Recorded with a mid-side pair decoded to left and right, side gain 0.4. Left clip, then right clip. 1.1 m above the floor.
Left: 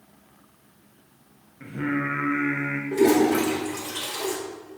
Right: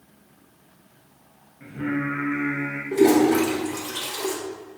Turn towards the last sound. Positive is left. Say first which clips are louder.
# right 2 dB
turn(degrees=-10)